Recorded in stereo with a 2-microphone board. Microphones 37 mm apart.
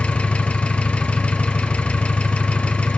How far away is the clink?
No clink in this recording.